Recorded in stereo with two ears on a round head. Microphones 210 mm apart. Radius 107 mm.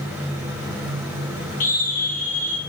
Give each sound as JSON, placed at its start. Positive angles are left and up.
{"t": 1.6, "sound": "a scream", "side_deg": 35, "distance_m": 9.5}